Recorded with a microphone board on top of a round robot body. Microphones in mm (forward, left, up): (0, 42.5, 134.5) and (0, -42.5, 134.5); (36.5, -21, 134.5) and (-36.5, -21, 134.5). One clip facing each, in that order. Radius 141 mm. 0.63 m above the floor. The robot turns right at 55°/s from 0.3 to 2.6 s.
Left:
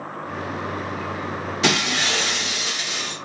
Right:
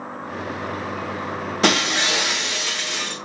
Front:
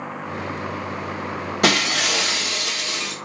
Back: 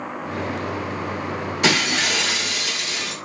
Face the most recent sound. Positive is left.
turn(degrees=10)